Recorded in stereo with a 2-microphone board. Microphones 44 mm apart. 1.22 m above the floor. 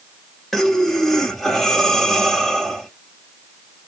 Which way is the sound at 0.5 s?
5° left (ahead or behind).